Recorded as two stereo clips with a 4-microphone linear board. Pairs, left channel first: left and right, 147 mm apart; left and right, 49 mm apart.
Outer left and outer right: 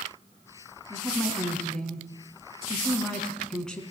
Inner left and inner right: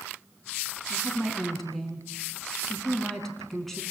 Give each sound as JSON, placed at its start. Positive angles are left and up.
{"t": 0.9, "sound": "a woman speaking", "side_deg": 5, "distance_m": 4.5}